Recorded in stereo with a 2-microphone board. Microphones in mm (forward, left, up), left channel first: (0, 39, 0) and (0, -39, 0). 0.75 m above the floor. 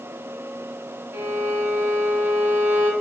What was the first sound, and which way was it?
A violin, 25° right (ahead or behind).